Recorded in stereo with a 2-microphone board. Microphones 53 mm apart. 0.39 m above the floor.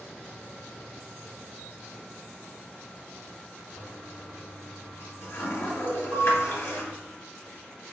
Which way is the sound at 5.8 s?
50° right (ahead or behind).